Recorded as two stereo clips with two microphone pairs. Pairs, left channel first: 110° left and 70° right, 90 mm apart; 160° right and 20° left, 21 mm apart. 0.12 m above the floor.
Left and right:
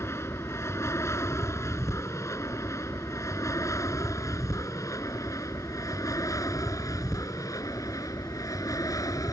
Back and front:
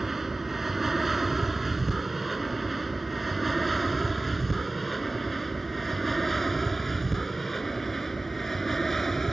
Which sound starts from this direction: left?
An aircraft, at 0.0 s.